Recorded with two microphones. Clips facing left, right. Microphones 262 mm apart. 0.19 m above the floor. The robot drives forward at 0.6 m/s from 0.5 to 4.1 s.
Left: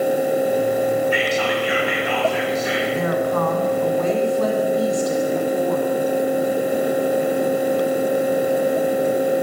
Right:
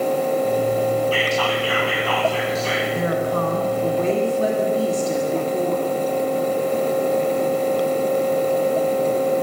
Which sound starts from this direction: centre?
Whispering, at 1.1 s.